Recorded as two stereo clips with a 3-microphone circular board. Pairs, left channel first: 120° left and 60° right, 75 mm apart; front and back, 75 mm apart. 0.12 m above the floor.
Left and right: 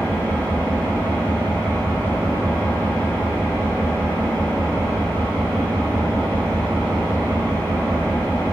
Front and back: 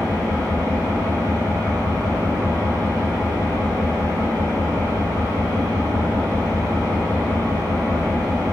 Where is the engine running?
175° right, 1.1 m.